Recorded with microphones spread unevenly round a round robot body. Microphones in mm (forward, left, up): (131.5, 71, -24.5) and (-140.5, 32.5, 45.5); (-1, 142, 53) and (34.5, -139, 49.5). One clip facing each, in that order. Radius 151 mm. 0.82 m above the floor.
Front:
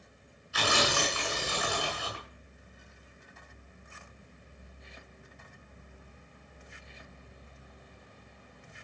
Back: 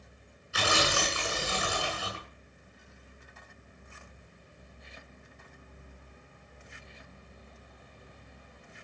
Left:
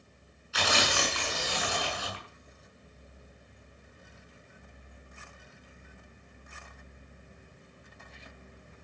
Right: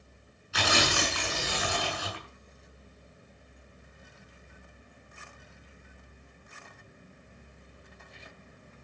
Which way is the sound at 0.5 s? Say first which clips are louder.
Even, right 2 dB; 105° right.